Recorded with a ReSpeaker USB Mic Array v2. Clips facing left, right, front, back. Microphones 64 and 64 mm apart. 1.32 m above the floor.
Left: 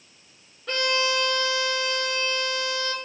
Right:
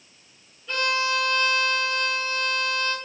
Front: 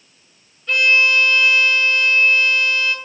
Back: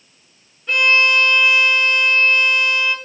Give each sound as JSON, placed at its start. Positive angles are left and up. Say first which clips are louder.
{"t": 0.7, "sound": "a violin", "louder": "even, even", "azimuth_deg": 110, "distance_m": 1.0}